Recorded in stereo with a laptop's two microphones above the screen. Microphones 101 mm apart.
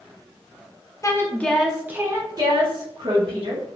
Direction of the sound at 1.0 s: 30° left (ahead or behind).